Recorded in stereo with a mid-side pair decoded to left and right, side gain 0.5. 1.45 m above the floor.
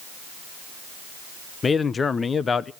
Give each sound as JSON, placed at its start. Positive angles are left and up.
{"t": 1.6, "sound": "a man speaking", "azimuth_deg": 35, "distance_m": 0.8}